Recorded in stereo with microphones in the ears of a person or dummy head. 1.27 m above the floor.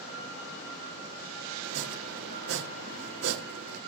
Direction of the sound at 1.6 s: 55° right (ahead or behind).